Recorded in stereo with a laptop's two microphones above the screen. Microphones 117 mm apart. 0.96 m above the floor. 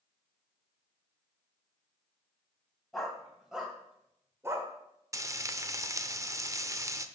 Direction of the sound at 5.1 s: 25° right (ahead or behind).